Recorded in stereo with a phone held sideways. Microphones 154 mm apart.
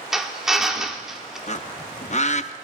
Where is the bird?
50° left (ahead or behind), 0.5 m.